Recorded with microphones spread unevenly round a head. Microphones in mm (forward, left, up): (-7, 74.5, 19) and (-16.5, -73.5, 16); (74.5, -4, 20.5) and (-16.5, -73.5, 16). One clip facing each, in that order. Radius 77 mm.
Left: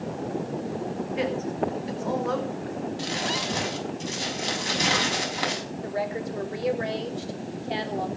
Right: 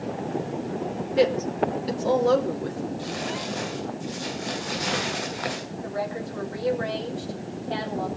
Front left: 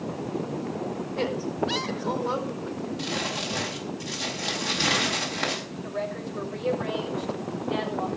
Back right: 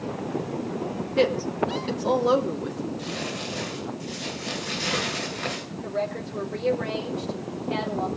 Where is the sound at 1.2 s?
145° right, 2.5 m.